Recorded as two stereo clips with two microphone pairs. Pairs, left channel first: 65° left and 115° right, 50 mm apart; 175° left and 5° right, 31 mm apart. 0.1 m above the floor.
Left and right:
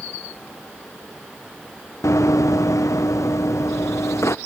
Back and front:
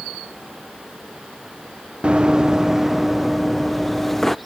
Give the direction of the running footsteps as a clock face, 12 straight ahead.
10 o'clock.